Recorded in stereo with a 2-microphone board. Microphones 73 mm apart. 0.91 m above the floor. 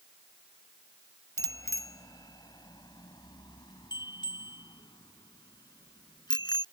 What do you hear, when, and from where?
1.4 s a bicycle bell: 45° left (ahead or behind); by 6.6 s 80° left